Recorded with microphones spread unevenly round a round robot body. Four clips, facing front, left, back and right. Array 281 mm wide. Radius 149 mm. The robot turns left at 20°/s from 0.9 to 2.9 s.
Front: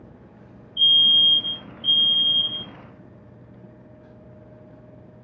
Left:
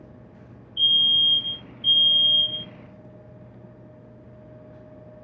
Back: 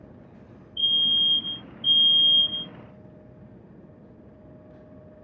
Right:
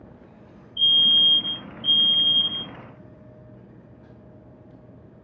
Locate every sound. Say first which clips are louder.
0.8 s a fire alarm: right 2 dB, front 6 dB; 135° right, 2 m; by 2.7 s 170° right, 2 m